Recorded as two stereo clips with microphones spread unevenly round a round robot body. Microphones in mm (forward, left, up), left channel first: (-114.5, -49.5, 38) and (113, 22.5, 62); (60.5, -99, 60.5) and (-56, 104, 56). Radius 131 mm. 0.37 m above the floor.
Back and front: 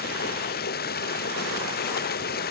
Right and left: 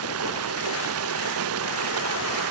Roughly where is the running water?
Behind left.